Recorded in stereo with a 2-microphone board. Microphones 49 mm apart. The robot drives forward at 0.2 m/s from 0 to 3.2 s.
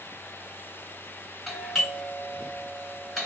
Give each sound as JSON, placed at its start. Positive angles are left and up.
{"t": 1.5, "sound": "a doorbell", "side_deg": 0, "distance_m": 3.0}